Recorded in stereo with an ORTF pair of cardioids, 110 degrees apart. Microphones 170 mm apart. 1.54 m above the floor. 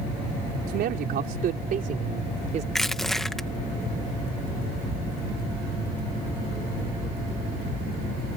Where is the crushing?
Straight ahead.